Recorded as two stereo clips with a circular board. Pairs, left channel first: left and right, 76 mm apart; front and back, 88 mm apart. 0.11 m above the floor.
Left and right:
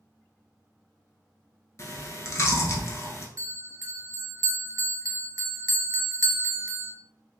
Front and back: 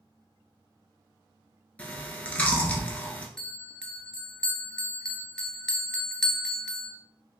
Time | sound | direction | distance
1.8 | chewing | 65° left | 0.7 m
3.4 | a bell | 80° right | 0.5 m